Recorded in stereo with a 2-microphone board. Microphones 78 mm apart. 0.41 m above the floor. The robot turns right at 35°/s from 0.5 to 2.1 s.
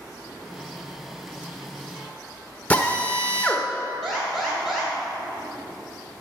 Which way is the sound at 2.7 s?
20° left (ahead or behind).